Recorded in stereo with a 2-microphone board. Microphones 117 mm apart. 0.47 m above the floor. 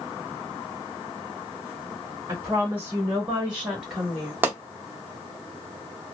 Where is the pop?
15° right (ahead or behind), 0.7 m.